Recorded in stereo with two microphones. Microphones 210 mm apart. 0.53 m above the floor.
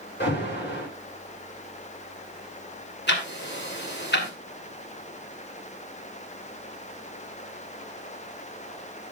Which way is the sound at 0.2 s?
55° left (ahead or behind).